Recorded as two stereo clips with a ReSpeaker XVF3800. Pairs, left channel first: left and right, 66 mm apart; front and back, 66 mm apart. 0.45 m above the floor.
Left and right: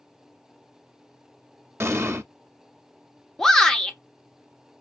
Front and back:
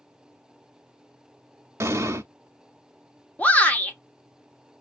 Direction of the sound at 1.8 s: 135° right.